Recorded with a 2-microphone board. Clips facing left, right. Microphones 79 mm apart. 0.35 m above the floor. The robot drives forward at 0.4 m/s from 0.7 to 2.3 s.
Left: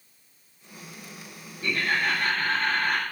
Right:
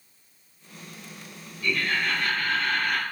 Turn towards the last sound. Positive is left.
turn(degrees=35)  # may be behind; listen again after turning